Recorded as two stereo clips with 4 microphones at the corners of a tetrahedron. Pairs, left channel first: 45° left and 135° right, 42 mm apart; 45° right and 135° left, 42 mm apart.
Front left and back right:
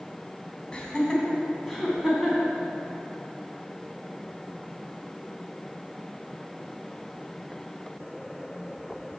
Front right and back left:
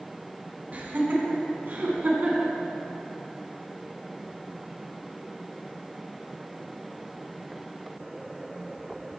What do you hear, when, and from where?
0.7 s laughter: 110° left, 1.8 m; by 2.5 s 155° left, 2 m